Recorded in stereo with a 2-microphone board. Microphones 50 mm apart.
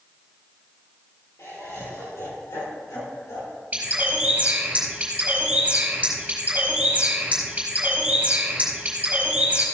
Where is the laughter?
65° left (ahead or behind), 5 m; by 3.6 s 80° left, 7.5 m.